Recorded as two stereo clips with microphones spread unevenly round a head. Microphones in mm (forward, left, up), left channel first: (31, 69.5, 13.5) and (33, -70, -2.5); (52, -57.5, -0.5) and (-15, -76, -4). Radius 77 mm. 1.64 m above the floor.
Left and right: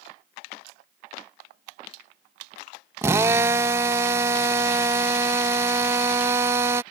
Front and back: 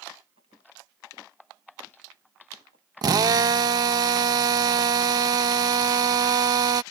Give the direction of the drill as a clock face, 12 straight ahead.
5 o'clock.